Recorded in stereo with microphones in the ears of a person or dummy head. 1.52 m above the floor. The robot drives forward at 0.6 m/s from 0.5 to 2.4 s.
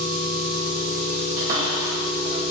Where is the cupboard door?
40° right (ahead or behind), 1.9 m; by 2.4 s 55° right (ahead or behind), 1.5 m.